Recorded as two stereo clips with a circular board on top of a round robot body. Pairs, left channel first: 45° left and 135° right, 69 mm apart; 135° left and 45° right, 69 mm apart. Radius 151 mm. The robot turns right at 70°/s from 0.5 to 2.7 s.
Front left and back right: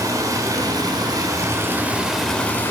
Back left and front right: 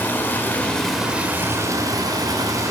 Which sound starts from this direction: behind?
Running water, at 0.0 s.